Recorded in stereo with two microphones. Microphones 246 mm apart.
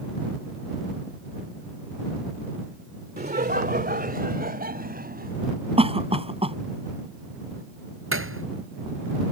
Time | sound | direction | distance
3.2 | laughter | 40° right (ahead or behind) | ?
5.8 | a cough | 25° right (ahead or behind) | ?
8.1 | a thud | 60° right (ahead or behind) | ?